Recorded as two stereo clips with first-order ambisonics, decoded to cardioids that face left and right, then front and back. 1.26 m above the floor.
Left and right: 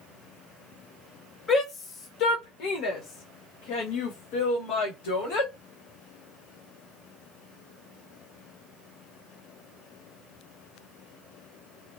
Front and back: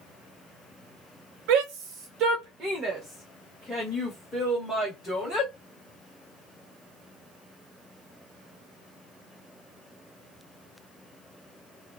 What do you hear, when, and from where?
1.5 s a shout: 160° left, 0.8 m; by 5.5 s 75° left, 2.5 m